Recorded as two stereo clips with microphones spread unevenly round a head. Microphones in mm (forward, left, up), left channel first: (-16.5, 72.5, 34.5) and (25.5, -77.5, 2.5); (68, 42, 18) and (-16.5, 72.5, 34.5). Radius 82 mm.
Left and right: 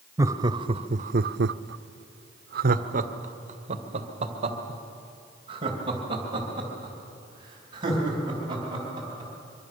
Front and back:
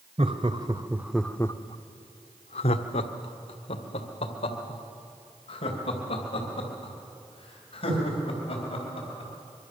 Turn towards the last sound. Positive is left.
turn(degrees=-10)